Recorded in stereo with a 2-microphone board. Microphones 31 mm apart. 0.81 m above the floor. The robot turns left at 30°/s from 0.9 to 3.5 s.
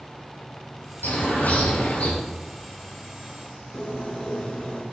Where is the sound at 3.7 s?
30° left (ahead or behind), 1.4 m.